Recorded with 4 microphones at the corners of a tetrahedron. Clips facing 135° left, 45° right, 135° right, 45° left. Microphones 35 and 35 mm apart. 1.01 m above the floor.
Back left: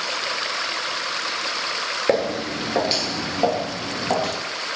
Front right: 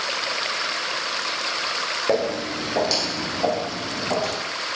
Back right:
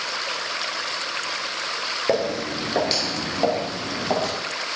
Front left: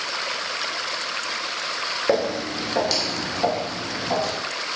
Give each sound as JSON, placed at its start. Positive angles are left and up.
{"t": 2.1, "sound": "footsteps", "azimuth_deg": 130, "distance_m": 1.0}